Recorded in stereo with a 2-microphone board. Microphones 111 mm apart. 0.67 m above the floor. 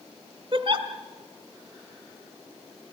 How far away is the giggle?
About 1.4 m.